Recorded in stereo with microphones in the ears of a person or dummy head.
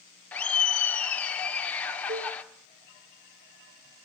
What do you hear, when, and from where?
0.3 s laughter: 5° left (ahead or behind), 1.3 m
2.1 s a cowbell: 30° right (ahead or behind), 2.5 m